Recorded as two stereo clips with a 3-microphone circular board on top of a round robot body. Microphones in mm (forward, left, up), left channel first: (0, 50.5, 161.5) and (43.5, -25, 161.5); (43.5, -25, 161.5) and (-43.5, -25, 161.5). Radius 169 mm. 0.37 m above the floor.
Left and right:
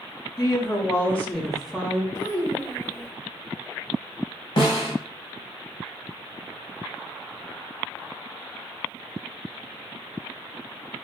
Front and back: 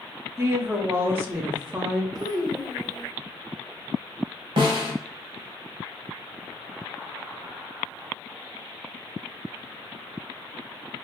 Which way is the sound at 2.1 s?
170° left.